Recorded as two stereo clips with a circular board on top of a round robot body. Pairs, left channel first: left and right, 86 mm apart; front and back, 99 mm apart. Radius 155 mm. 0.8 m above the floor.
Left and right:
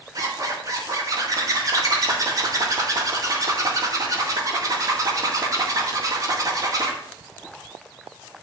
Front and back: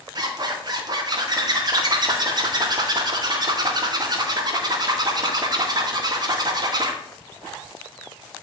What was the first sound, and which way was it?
A zipper, 135° right.